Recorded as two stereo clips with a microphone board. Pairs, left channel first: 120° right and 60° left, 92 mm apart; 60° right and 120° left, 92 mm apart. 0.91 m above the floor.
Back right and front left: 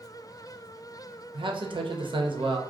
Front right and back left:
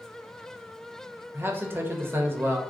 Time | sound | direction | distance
1.3 | a man speaking | 55° left | 0.8 m